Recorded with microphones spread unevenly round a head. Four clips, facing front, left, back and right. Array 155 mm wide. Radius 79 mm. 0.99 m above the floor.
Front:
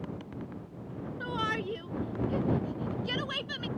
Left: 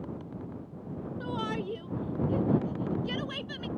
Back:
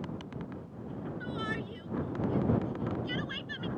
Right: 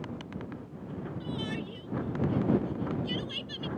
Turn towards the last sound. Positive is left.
turn(degrees=40)